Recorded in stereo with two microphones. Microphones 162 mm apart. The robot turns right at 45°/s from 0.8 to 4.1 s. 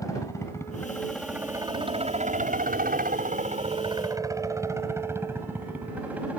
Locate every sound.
0.0 s a helicopter: 20° left (ahead or behind); by 6.4 s 10° right (ahead or behind)